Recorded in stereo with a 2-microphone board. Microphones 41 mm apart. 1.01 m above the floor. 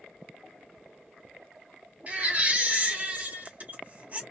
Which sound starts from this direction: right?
A baby crying, at 2.1 s.